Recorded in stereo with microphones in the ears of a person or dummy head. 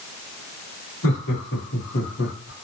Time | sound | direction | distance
1.0 | laughter | 75° left (ahead or behind) | 2.5 m